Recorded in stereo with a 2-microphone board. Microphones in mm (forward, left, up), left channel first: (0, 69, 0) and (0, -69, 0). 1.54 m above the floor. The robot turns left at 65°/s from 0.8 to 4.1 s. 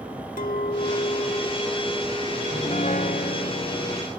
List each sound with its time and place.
0.4 s a clink: 75° left; by 3.5 s 100° right
2.5 s a piano: 145° left; by 4.1 s 40° left